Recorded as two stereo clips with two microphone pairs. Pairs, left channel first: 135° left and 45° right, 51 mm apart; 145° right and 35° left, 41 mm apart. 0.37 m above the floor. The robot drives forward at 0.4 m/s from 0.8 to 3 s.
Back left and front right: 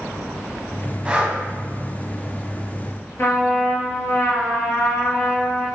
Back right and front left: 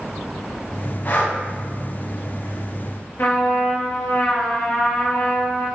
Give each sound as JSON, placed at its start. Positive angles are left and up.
{"t": 1.1, "sound": "breathing", "azimuth_deg": -120, "distance_m": 1.8}
{"t": 3.2, "sound": "a trumpet", "azimuth_deg": 180, "distance_m": 2.0}